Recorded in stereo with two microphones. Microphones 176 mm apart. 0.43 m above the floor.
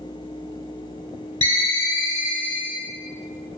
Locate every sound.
1.4 s a ringtone: 25° right (ahead or behind), 0.6 m